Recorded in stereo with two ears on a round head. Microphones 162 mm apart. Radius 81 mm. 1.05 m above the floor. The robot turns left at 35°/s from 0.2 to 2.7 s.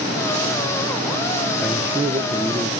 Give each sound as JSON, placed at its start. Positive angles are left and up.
{"t": 1.6, "sound": "a man speaking", "azimuth_deg": 0, "distance_m": 0.6}